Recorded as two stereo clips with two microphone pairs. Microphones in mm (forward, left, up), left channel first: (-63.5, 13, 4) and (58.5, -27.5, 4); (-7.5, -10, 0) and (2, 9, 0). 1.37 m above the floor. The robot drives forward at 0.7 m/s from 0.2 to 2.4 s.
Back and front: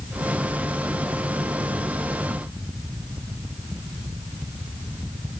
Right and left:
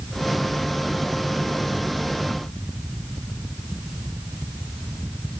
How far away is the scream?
I don't hear a scream.